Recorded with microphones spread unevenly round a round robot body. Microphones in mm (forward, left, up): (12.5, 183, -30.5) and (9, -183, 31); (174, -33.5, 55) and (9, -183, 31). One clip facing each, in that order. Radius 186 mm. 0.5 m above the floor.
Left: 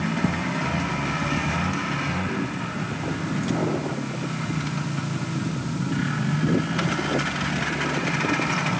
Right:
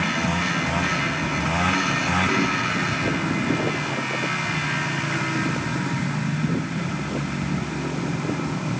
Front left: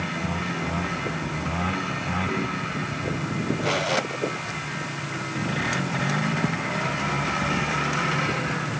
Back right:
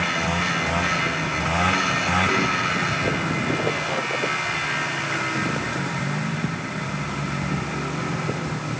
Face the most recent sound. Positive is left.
No sound to turn to.